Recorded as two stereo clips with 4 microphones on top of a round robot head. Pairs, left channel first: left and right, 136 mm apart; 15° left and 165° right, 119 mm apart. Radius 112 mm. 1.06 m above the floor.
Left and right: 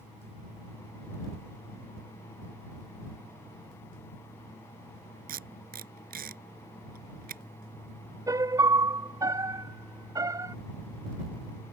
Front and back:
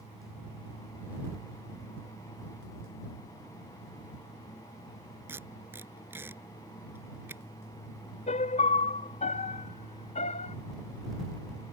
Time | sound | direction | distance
5.3 | tape being pulled | 90° right | ?
8.3 | a piano | 25° right | ?